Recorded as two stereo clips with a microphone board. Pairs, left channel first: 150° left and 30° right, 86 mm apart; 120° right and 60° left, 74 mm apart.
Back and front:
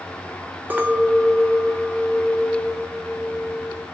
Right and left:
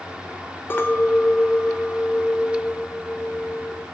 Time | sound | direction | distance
0.7 | a clink | 85° right | 0.6 m